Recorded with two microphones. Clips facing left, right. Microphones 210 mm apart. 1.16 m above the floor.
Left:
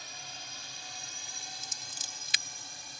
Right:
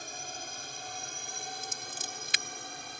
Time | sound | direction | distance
0.0 | a drone | 50° right (ahead or behind) | ?
1.6 | scissors | 55° right (ahead or behind) | ?